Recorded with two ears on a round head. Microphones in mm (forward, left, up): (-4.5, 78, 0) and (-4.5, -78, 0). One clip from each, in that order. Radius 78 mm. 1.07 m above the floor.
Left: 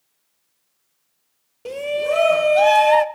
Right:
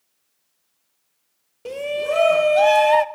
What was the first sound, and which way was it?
A shout, centre (ahead or behind).